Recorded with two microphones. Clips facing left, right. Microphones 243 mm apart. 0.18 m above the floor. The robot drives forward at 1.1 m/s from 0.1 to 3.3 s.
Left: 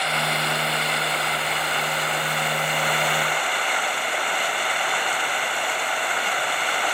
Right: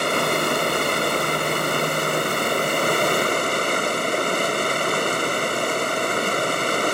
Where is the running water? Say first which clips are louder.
Right 7 dB; 55° right (ahead or behind); by 6.9 s 50° right (ahead or behind).